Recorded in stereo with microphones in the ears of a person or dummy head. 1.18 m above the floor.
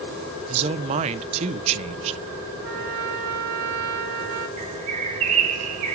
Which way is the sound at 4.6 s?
40° right (ahead or behind).